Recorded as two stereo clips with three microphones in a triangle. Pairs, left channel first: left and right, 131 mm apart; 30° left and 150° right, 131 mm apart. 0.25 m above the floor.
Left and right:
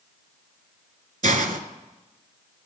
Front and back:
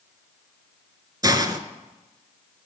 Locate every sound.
1.2 s a hiss: 90° right, 0.6 m